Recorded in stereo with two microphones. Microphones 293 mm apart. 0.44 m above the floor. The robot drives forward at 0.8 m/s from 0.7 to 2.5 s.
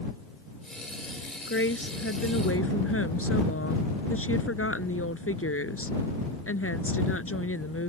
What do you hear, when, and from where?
1.5 s a woman speaking: 45° left (ahead or behind); by 7.9 s 50° left (ahead or behind)